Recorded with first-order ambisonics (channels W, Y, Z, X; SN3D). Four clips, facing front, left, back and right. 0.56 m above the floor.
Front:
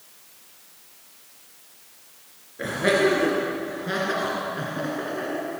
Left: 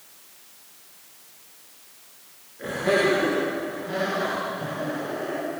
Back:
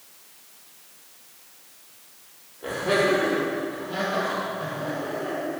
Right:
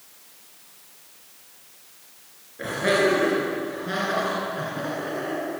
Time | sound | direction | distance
2.6 | laughter | 25° right | 10 m